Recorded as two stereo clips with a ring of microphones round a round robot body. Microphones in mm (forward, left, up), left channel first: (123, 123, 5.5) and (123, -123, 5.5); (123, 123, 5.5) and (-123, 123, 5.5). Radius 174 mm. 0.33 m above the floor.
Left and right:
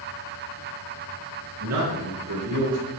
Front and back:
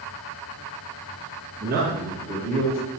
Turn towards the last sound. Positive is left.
turn(degrees=-95)